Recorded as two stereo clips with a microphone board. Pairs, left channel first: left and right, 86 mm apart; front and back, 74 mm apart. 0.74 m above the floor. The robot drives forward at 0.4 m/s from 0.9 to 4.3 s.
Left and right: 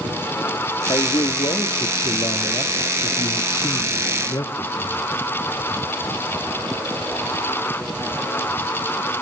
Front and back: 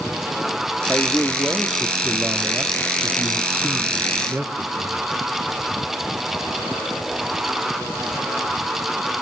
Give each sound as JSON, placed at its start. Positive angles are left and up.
{"t": 0.9, "sound": "a man speaking", "azimuth_deg": 75, "distance_m": 1.6}